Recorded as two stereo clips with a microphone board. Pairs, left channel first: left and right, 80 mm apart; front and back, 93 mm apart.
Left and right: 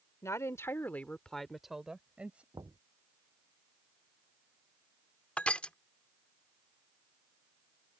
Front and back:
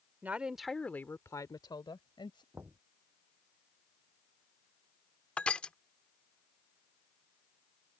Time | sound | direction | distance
0.2 | a woman speaking | 115° left | ?
2.5 | knocking | 115° right | ?
5.4 | crushing | 55° left | ?